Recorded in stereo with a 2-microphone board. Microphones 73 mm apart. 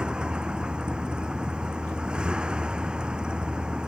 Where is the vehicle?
15° right (ahead or behind).